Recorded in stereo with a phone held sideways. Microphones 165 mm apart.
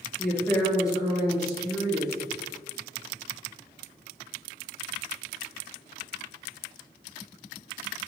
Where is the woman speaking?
5° left (ahead or behind), 0.6 m; by 2.1 s 20° left (ahead or behind), 1.6 m.